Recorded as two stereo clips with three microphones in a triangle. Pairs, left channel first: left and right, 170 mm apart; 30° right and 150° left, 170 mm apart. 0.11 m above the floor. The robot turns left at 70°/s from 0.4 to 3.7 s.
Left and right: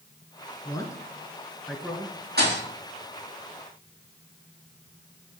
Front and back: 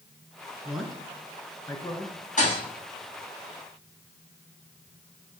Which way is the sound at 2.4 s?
70° right.